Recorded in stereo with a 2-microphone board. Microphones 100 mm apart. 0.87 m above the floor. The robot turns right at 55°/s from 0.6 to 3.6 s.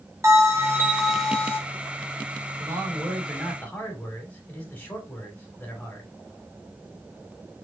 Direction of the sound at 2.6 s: 40° right.